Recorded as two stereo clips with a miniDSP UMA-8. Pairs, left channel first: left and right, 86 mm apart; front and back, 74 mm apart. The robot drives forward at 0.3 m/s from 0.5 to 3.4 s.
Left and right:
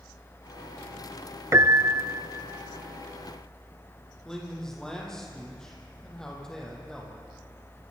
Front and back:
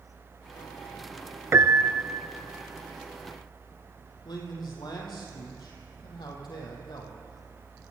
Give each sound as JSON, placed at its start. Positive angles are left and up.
{"t": 1.5, "sound": "a piano", "azimuth_deg": -135, "distance_m": 0.9}
{"t": 4.2, "sound": "a man speaking", "azimuth_deg": 5, "distance_m": 6.0}